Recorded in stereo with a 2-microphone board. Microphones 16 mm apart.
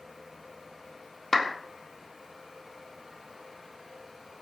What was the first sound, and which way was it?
A clap, 10° left (ahead or behind).